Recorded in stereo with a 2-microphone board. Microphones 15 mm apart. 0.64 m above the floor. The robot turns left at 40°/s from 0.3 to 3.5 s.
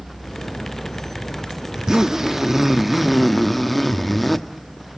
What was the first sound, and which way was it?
A zipper, 115° right.